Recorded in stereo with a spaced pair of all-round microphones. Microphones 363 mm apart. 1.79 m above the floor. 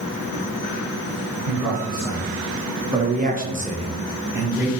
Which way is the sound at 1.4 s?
10° right (ahead or behind).